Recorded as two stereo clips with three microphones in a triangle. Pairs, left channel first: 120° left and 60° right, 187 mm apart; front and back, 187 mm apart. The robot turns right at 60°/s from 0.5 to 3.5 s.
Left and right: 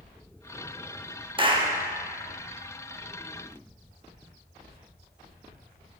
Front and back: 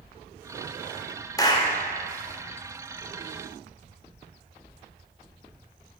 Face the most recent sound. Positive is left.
turn(degrees=80)